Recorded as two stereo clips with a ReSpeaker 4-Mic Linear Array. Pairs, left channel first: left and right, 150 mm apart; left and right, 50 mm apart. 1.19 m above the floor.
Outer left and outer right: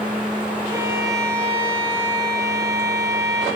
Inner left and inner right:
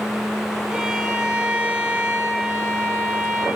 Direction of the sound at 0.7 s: 20° right (ahead or behind).